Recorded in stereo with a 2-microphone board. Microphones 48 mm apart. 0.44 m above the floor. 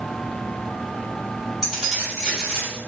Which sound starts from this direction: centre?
Keys jangling, at 1.6 s.